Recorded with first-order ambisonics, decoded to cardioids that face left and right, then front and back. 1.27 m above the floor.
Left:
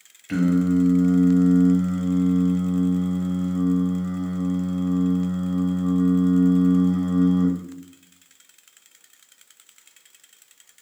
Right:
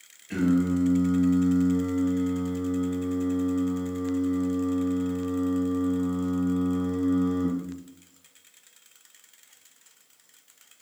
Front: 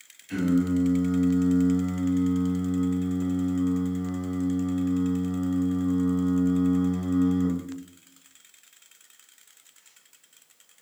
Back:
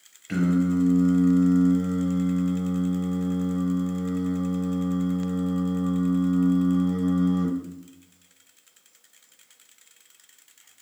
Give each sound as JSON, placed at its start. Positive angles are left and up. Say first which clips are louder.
{"t": 0.3, "sound": "singing", "louder": "left 3 dB, even", "azimuth_deg": 125, "distance_m": 0.6}